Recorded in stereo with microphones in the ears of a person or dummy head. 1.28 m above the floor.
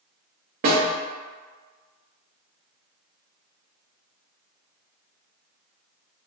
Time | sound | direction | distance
0.6 | a snare drum | 35° right (ahead or behind) | 0.8 m